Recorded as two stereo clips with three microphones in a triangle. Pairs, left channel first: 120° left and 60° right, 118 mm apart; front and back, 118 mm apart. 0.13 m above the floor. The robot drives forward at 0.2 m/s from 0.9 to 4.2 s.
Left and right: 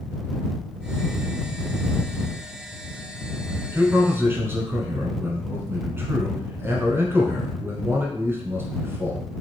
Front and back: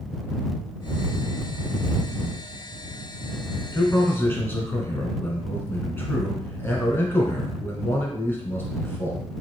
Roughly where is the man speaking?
Ahead right.